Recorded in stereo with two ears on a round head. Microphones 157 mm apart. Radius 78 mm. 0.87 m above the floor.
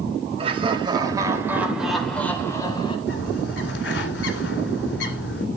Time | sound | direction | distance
0.4 | laughter | 35° right (ahead or behind) | 4 m
3.1 | a bird | 70° left (ahead or behind) | 2.0 m